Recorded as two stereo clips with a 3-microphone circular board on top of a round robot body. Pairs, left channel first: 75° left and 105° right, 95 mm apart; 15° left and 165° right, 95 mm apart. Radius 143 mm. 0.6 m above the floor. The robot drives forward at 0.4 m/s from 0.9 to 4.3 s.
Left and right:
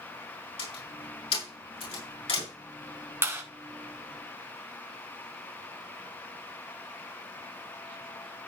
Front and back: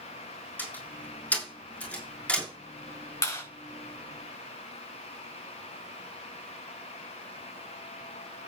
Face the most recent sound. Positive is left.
turn(degrees=-45)